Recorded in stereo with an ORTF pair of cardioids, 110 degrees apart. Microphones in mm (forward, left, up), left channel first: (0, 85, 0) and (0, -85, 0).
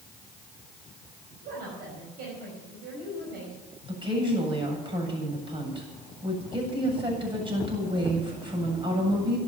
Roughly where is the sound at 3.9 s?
Ahead right.